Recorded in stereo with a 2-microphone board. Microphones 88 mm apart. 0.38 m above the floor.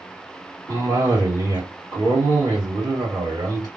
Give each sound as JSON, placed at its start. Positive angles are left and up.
{"t": 0.7, "sound": "a cough", "side_deg": -50, "distance_m": 2.0}